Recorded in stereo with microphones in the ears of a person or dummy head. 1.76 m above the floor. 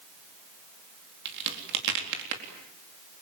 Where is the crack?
65° right (ahead or behind), 4 m.